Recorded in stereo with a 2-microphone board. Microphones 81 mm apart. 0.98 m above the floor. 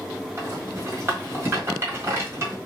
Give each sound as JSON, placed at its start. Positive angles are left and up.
{"t": 0.4, "sound": "a rattle", "side_deg": -30, "distance_m": 1.6}